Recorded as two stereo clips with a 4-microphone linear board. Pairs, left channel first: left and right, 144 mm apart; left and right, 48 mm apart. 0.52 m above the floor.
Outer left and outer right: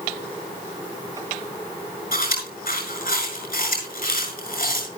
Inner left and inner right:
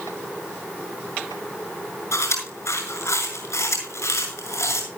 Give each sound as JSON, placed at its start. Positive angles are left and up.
{"t": 2.1, "sound": "chewing", "side_deg": 70, "distance_m": 6.0}